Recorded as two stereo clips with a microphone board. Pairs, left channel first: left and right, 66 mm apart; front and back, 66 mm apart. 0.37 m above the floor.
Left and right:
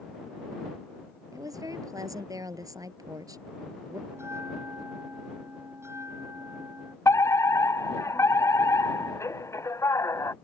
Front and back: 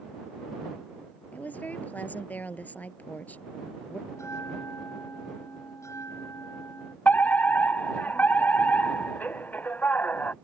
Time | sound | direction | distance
1.3 | a woman speaking | 65° right | ?
4.1 | a bell | 45° right | ?
7.0 | a fire alarm | 60° left | ?